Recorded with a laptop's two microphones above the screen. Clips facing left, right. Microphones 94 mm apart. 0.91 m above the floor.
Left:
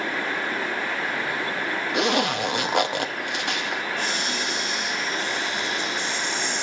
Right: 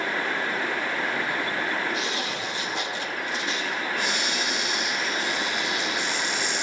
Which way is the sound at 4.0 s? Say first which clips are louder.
Even; 5° right (ahead or behind).